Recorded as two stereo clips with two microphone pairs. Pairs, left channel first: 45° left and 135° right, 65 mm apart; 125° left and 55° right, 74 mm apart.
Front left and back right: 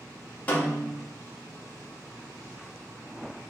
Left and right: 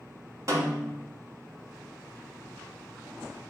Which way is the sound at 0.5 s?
20° right.